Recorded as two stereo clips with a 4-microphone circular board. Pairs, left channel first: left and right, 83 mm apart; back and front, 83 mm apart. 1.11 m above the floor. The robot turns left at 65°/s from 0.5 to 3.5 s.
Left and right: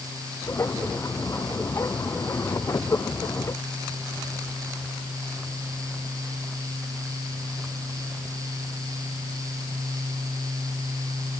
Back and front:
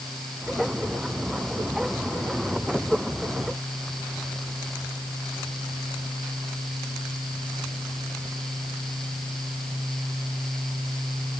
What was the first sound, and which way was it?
Only background noise.